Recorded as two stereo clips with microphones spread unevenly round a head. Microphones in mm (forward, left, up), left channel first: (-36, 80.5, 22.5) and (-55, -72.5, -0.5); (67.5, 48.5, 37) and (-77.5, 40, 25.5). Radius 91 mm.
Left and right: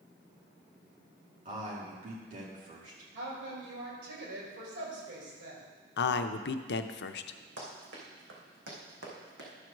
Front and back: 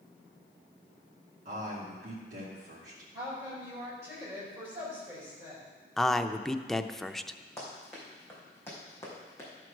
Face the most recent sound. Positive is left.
turn(degrees=-65)